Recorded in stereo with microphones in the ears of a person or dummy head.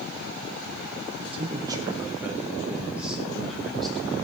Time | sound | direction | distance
1.2 | a man speaking | 35° right (ahead or behind) | 1.1 m